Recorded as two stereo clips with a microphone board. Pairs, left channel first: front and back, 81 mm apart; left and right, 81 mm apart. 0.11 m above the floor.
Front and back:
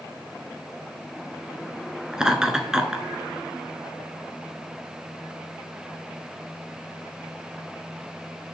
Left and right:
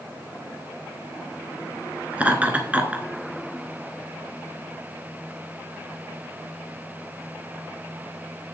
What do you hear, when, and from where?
2.1 s laughter: 115° right, 1.1 m